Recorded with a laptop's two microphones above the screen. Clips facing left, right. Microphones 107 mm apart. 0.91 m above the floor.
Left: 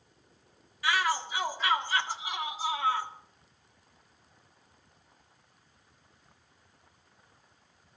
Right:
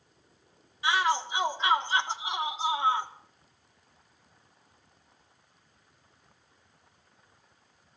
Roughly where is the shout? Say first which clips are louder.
Right 2 dB; right.